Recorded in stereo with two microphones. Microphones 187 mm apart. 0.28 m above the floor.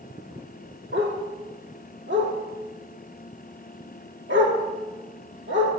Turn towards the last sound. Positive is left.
turn(degrees=-85)